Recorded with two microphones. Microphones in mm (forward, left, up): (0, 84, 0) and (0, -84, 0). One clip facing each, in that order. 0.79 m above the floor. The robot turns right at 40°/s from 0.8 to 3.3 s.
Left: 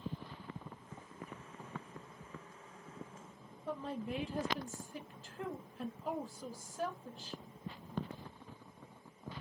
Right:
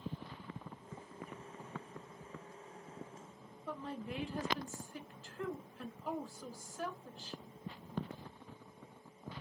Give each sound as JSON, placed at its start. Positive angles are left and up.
{"t": 3.7, "sound": "a woman speaking", "side_deg": 35, "distance_m": 1.0}